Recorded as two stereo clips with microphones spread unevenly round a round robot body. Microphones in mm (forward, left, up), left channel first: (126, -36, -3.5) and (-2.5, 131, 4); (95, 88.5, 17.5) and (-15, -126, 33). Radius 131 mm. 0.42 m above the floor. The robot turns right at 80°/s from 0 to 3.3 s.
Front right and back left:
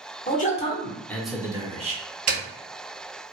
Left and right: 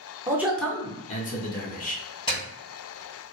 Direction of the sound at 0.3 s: 45° right.